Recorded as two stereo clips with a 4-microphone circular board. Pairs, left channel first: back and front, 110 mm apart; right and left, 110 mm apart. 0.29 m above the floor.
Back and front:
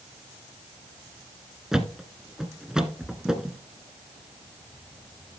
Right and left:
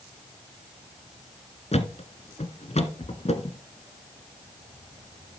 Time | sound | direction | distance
1.7 | a thud | 85° right | 1.2 m